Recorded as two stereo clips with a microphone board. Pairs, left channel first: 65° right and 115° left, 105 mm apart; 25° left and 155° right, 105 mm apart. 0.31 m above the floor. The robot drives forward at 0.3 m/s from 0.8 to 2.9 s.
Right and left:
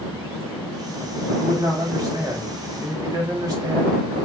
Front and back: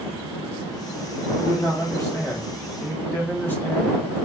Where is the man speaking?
70° left, 1.9 m; by 4.0 s 85° left, 1.9 m.